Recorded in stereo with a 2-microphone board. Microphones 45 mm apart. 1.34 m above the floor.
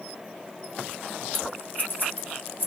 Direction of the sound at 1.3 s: 45° left (ahead or behind).